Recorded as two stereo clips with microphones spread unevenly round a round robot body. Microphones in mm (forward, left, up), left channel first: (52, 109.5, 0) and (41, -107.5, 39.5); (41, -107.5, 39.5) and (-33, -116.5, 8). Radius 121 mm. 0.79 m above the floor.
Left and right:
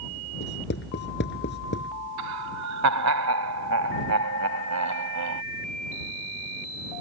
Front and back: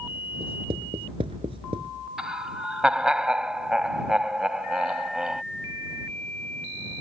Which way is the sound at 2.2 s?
90° right.